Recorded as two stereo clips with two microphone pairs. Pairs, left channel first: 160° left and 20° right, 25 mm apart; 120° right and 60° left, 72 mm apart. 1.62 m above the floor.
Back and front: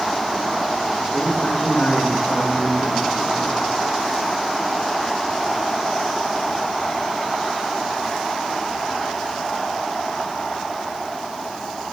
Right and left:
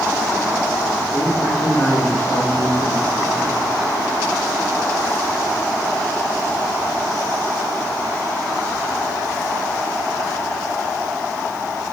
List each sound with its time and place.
1.1 s a man speaking: 175° left, 3.5 m; by 3.6 s 150° left, 3.5 m